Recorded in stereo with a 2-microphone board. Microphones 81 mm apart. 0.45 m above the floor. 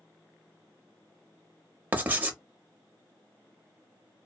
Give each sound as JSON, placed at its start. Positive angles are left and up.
{"t": 1.9, "sound": "writing", "side_deg": -20, "distance_m": 0.7}